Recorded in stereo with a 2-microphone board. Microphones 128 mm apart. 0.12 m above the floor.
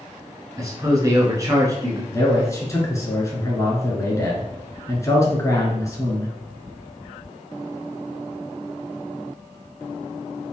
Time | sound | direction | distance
0.6 | a man speaking | 25° right (ahead or behind) | 1.2 m
2.1 | a man speaking | 25° left (ahead or behind) | 1.3 m